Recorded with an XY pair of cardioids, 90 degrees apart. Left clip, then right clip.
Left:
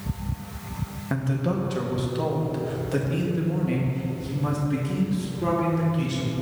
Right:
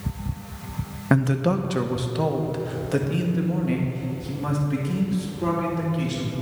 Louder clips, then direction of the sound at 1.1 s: Right 6 dB; 70° right.